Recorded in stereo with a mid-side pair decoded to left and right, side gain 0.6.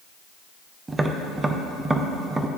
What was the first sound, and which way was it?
Tapping, 20° right.